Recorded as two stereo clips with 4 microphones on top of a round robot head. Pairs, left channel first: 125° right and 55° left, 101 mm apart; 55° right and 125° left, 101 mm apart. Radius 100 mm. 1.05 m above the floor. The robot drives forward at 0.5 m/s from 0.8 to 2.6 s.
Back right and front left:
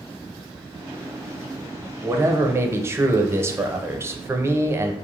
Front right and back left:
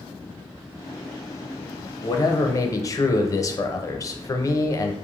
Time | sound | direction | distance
2.0 | a man speaking | 5° right | 0.7 m